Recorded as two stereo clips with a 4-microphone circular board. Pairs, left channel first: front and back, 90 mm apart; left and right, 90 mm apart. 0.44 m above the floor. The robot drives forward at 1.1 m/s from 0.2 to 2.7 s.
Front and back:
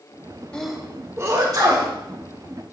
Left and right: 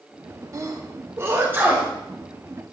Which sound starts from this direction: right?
A sneeze, at 0.5 s.